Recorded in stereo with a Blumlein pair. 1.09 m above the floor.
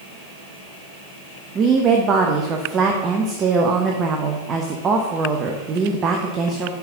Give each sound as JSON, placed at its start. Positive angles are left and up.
{"t": 1.6, "sound": "a woman speaking", "azimuth_deg": -25, "distance_m": 0.8}